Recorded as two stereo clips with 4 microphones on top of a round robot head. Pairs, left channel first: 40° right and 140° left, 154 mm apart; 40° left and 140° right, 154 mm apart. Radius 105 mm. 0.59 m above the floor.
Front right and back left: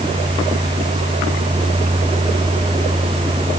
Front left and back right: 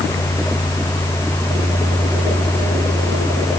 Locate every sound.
Only background noise.